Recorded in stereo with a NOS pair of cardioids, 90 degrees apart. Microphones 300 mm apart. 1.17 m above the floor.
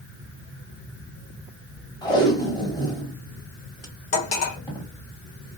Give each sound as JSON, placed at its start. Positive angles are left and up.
{"t": 2.0, "sound": "tape being pulled", "azimuth_deg": 15, "distance_m": 1.0}
{"t": 4.1, "sound": "cutlery clinking", "azimuth_deg": 55, "distance_m": 1.0}